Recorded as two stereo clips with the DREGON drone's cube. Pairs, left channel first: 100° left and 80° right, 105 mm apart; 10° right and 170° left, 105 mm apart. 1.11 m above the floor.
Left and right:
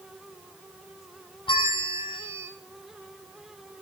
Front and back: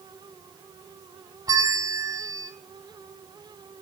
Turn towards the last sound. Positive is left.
turn(degrees=120)